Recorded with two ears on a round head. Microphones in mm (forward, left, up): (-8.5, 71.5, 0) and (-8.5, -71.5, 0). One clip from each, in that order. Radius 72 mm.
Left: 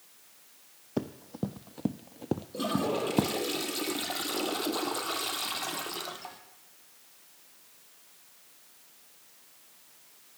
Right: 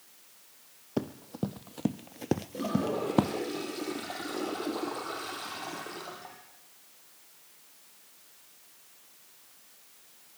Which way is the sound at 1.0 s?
5° right (ahead or behind).